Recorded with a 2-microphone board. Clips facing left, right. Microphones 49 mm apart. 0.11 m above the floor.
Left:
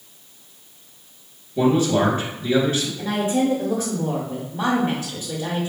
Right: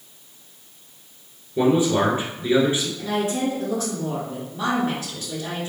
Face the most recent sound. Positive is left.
turn(degrees=25)  # may be behind; listen again after turning